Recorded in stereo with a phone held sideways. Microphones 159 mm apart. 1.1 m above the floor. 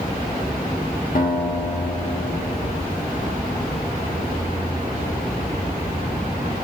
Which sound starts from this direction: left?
A guitar, at 1.1 s.